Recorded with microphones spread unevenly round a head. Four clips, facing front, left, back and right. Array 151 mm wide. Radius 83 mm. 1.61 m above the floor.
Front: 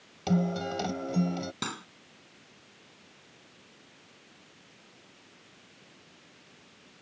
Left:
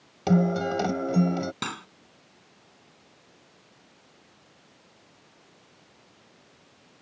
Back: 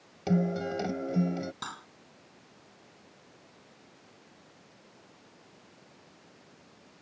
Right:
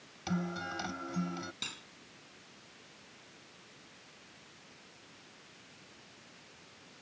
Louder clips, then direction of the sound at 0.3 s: Left 14 dB, even; 100° left.